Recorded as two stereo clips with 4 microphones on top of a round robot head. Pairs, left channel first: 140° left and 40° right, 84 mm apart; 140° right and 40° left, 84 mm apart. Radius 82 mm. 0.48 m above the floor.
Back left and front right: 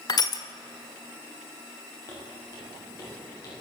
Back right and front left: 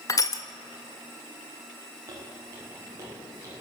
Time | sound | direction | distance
0.1 | crushing | 175° left | 1.8 m
2.1 | footsteps | 90° left | 10 m